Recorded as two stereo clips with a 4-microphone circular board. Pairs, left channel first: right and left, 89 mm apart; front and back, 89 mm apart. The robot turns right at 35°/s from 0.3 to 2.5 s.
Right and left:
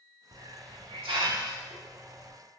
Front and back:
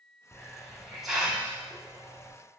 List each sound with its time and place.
0.3 s a hiss: 65° left, 0.8 m; by 2.3 s 135° left, 0.8 m